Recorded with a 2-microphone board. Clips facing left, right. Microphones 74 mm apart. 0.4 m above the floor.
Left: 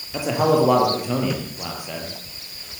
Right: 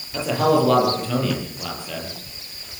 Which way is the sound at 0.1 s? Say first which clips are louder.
Even; 15° left (ahead or behind).